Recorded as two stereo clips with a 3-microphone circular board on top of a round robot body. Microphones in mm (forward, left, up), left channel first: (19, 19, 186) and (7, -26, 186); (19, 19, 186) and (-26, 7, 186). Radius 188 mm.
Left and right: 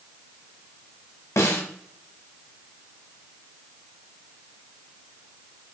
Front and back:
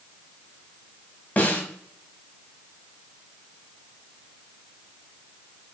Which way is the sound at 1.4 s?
75° left.